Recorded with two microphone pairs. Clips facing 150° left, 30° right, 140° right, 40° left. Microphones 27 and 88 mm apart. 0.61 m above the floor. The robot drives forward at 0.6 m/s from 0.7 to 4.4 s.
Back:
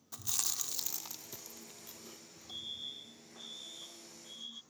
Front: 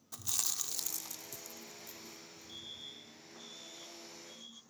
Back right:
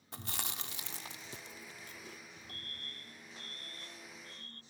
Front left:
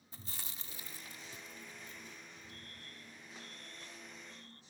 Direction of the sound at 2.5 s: 145° right.